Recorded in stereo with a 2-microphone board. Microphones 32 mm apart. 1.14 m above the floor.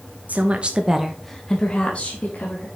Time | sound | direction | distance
0.3 | a woman speaking | 55° right (ahead or behind) | 1.6 m